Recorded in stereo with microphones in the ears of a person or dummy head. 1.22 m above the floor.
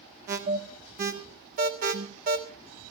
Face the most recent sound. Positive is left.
turn(degrees=-45)  # may be behind; listen again after turning